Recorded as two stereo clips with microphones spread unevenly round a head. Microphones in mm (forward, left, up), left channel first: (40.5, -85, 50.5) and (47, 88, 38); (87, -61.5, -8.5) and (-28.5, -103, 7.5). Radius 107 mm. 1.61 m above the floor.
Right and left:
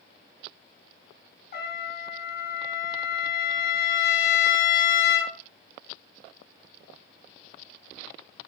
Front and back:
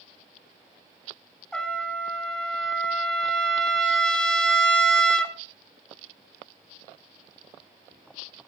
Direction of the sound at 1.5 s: 65° right.